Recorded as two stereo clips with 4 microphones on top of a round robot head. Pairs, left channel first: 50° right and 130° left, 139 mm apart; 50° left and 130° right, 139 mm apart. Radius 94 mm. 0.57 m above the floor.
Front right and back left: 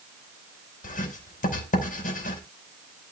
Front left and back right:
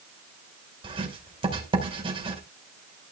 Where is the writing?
80° right, 5 m.